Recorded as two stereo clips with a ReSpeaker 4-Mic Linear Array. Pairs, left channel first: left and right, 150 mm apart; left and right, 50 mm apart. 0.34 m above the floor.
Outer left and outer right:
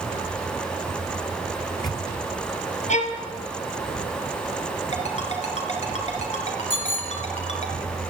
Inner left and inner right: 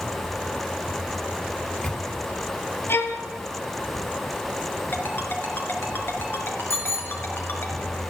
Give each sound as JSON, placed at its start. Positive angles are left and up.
{"t": 1.6, "sound": "a microwave", "side_deg": 30, "distance_m": 2.5}
{"t": 2.9, "sound": "a violin", "side_deg": 55, "distance_m": 2.0}
{"t": 4.9, "sound": "a ringtone", "side_deg": 50, "distance_m": 3.0}
{"t": 6.7, "sound": "a bicycle bell", "side_deg": 70, "distance_m": 2.0}